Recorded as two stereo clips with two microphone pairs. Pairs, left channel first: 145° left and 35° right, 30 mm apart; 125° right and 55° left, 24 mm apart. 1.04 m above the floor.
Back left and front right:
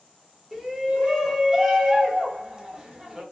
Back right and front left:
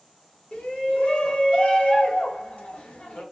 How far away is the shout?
About 0.9 m.